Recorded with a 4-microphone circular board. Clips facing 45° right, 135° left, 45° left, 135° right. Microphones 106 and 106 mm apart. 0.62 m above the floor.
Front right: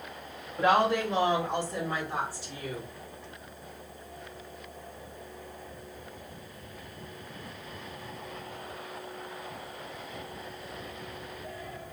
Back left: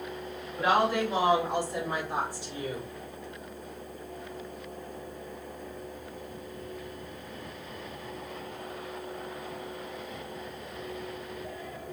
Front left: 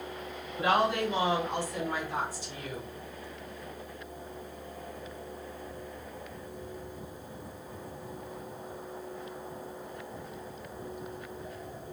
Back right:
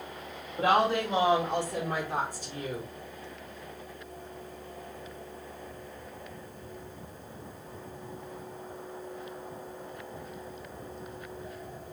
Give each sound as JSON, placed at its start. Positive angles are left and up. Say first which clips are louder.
{"t": 0.6, "sound": "a woman speaking", "louder": "front right 1 dB, back right 2 dB", "azimuth_deg": -140, "distance_m": 2.5}